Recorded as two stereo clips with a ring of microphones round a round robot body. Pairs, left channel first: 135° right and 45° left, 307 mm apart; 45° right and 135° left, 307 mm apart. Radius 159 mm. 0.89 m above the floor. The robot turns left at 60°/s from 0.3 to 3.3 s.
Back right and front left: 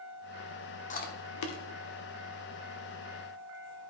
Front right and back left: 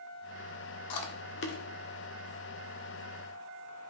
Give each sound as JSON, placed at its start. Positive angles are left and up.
{"t": 0.9, "sound": "chewing", "azimuth_deg": -70, "distance_m": 1.2}